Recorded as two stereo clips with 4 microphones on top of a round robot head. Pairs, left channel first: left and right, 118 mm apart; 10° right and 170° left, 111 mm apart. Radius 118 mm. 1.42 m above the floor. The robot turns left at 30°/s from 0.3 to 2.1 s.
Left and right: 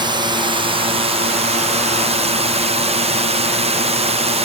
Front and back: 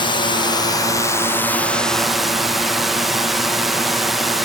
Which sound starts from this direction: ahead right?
A drone, at 0.0 s.